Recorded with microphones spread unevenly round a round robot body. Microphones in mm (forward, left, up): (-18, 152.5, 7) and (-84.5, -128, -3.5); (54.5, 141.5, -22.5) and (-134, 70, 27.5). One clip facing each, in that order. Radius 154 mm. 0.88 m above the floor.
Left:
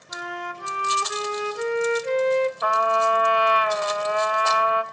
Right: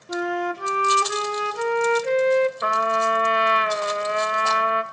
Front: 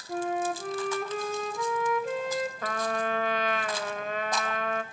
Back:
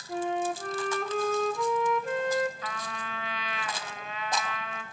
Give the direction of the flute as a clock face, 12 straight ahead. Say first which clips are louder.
Right 11 dB, even; 2 o'clock.